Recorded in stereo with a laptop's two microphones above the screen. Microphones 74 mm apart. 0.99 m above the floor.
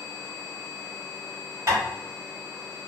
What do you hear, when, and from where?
1.7 s tapping: 40° right (ahead or behind), 1.6 m